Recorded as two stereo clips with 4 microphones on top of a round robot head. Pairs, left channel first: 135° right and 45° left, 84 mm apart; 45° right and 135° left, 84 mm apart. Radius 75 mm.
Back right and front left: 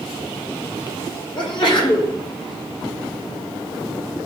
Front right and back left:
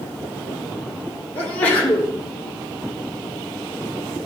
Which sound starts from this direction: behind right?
A sneeze, at 1.4 s.